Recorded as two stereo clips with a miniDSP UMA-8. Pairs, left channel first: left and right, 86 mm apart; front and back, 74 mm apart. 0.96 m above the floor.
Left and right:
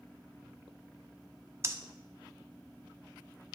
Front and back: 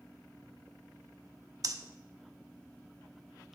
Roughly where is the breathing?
Behind right.